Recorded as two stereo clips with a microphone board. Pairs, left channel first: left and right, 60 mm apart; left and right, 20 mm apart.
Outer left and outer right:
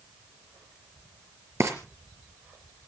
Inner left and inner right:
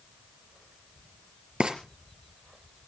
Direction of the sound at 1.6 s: 55° right (ahead or behind).